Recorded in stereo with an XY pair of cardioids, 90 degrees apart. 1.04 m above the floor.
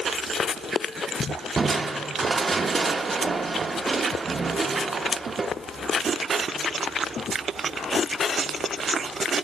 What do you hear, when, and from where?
1.6 s crushing: 35° right, 0.6 m